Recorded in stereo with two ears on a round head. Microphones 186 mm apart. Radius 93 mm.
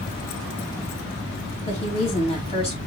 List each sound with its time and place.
1.6 s a woman speaking: 30° left (ahead or behind), 2.5 m